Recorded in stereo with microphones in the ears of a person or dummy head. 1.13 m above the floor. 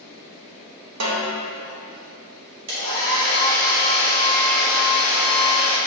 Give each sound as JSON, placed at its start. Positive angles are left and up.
{"t": 1.0, "sound": "a snare drum", "side_deg": -80, "distance_m": 1.3}
{"t": 2.7, "sound": "a hair dryer", "side_deg": -65, "distance_m": 2.0}